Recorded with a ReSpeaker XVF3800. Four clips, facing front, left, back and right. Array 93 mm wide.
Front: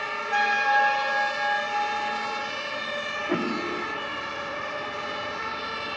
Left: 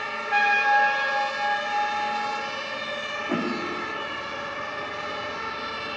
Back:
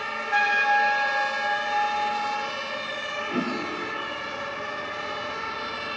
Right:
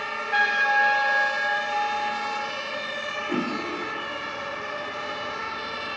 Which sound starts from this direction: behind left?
A trumpet, at 0.3 s.